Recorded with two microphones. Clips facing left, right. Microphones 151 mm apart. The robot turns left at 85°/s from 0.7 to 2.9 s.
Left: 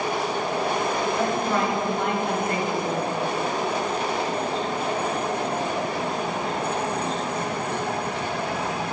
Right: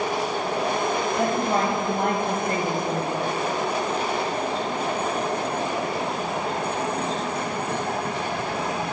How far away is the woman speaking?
About 1.8 m.